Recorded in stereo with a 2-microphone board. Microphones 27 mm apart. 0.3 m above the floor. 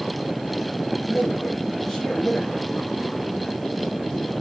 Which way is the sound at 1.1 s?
15° left (ahead or behind).